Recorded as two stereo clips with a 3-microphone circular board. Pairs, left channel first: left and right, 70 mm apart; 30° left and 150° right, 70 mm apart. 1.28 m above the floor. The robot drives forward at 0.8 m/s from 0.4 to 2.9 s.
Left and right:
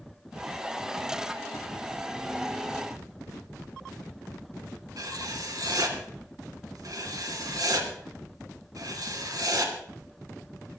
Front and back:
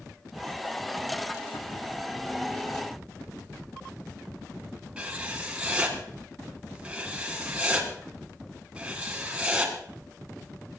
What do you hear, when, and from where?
5.0 s writing: 80° right, 2 m